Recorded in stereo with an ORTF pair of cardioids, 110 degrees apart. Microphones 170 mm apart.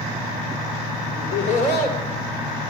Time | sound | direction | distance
1.1 | laughter | 60° left | 3.5 m